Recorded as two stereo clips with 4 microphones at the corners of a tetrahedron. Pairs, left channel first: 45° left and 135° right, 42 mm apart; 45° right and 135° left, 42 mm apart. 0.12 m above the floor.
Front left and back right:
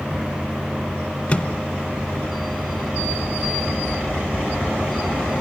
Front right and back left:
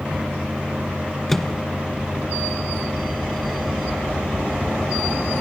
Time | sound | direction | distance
1.3 | a microwave | 25° left | 1.2 m